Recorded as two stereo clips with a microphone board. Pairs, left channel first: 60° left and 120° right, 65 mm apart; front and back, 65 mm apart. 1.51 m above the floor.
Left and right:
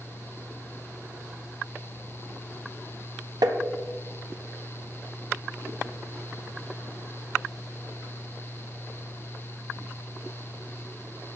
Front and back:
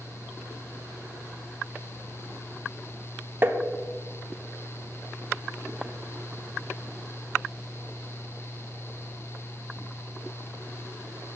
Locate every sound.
3.4 s tapping: 120° right, 0.8 m